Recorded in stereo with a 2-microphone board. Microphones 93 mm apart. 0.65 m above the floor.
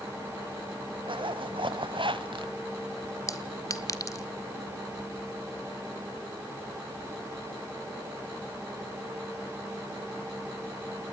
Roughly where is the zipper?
Right.